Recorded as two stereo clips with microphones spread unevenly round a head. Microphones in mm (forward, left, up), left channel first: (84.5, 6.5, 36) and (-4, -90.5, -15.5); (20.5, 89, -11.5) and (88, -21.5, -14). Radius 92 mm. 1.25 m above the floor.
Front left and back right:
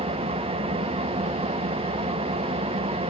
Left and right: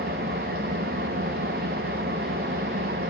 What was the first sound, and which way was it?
An engine running, 90° right.